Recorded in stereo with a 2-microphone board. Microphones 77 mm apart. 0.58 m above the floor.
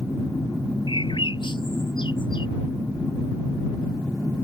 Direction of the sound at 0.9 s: 80° left.